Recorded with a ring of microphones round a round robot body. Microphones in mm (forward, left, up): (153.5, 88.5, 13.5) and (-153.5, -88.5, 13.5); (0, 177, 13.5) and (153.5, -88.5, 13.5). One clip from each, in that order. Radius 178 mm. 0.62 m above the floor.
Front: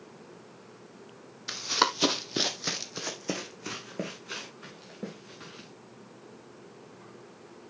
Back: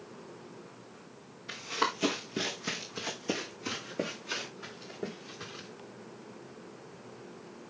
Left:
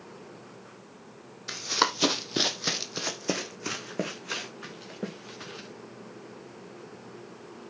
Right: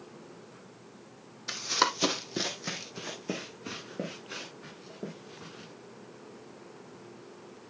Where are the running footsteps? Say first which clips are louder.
Front 5 dB, left 1 dB; 25° left, 1.5 m; by 5.7 s 130° left, 4 m.